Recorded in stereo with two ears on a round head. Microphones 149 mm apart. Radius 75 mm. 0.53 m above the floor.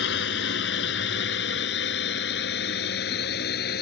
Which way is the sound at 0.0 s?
80° left.